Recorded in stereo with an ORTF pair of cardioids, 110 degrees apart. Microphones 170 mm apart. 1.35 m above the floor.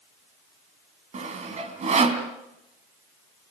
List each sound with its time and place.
1.1 s sawing: 45° right, 3 m